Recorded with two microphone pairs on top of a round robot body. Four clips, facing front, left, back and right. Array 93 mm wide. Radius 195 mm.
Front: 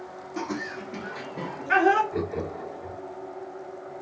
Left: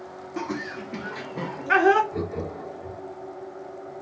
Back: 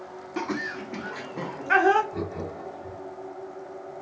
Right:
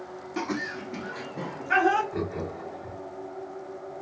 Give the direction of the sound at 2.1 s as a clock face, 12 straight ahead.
1 o'clock.